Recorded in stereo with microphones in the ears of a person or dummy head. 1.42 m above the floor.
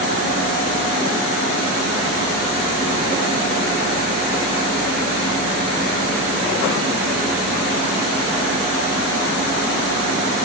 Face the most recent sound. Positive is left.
No sound to turn to.